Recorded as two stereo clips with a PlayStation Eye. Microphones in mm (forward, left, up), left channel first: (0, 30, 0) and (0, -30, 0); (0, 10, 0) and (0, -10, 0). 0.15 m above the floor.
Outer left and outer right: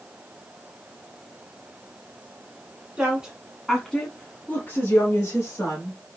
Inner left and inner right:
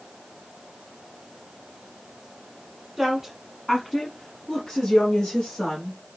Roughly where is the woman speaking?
Centre.